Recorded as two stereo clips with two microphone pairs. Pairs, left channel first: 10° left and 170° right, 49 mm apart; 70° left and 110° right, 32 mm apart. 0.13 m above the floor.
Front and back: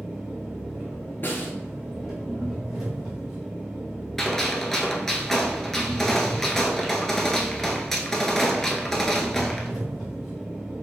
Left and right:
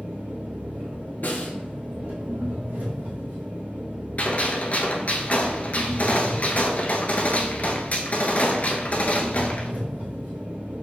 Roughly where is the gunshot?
Left.